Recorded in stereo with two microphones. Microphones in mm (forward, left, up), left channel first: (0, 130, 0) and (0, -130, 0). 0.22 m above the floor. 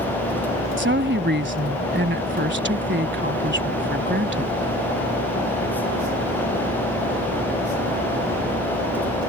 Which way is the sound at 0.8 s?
45° right (ahead or behind).